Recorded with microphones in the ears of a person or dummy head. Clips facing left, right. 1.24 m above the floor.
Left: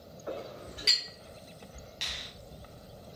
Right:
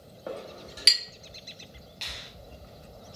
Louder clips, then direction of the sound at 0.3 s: Right 1 dB; 65° right (ahead or behind).